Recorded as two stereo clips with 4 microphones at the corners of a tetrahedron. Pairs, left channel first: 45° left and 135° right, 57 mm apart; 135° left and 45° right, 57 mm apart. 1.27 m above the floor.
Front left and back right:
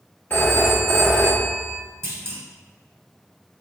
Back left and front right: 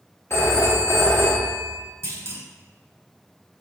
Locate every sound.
0.3 s a phone ringing: 100° left, 1.2 m
2.0 s a clunk: 90° right, 1.0 m